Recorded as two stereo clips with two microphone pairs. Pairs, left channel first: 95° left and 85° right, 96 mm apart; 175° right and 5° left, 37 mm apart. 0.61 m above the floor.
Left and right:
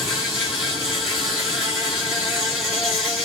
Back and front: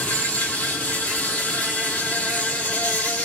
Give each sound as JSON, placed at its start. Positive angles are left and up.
{"t": 0.0, "sound": "an insect", "azimuth_deg": -170, "distance_m": 2.5}